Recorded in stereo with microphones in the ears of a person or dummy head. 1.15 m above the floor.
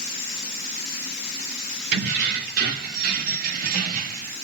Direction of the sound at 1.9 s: 55° right (ahead or behind).